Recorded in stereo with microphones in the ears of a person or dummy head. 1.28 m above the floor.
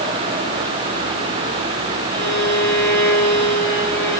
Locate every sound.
2.1 s a violin: 15° left (ahead or behind), 3.5 m